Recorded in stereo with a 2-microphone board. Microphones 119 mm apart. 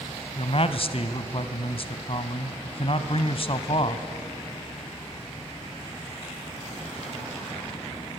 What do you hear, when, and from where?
0.4 s a man speaking: 50° left (ahead or behind), 1.4 m